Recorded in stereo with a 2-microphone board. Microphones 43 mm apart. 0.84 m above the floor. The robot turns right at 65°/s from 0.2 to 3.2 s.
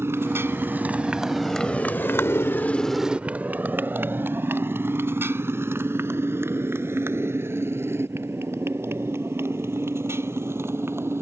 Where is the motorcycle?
90° right; by 11.2 s 85° right.